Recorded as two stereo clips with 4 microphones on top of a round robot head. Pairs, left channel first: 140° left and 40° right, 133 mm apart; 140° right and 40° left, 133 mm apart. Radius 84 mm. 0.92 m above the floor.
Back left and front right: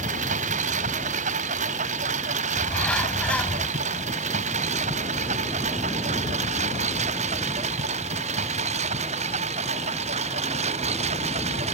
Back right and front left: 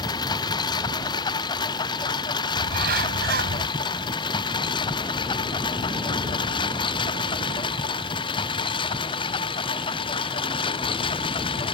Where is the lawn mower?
75° right; by 11.8 s 85° right.